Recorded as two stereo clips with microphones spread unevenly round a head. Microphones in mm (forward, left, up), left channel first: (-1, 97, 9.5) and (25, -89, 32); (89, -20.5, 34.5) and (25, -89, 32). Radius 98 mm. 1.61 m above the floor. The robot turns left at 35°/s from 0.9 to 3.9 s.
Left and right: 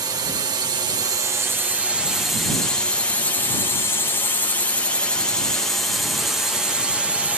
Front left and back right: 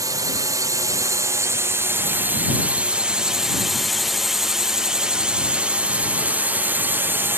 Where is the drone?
150° right; by 7.4 s 170° right.